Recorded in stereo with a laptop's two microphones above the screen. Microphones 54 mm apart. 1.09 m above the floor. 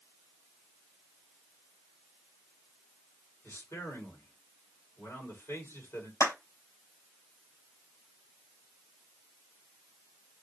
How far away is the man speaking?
About 3 m.